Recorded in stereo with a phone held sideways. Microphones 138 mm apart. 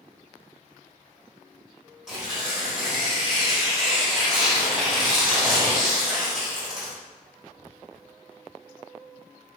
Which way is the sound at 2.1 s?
5° right (ahead or behind).